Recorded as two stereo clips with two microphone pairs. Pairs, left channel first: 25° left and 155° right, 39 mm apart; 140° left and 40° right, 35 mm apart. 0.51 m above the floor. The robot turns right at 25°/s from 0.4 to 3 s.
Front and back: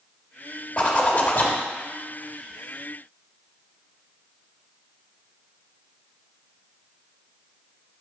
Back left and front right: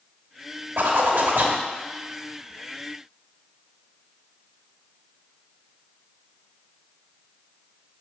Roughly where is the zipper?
Ahead right.